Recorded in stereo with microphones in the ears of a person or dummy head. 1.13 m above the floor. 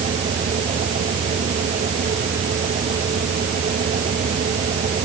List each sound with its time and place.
0.0 s a fan: 35° right (ahead or behind)